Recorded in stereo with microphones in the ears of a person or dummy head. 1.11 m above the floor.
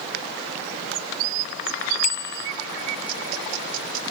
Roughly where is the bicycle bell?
Left.